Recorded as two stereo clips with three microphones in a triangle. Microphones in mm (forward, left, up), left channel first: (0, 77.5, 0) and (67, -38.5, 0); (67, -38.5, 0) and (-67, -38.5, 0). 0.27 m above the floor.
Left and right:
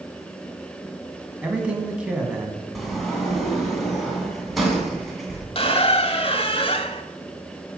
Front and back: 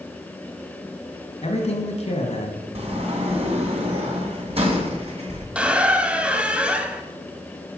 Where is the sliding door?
150° right, 2.5 m.